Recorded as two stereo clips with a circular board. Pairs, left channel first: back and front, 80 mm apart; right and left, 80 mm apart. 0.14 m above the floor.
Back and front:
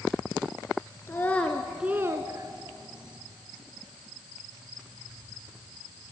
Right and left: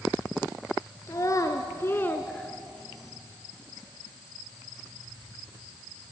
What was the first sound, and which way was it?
A child speaking, 125° right.